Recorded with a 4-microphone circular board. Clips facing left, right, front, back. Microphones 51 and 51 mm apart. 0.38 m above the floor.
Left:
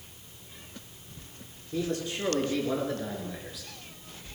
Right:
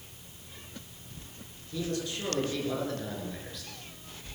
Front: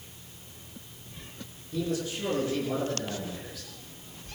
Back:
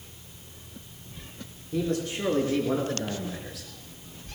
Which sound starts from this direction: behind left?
A man speaking, at 1.7 s.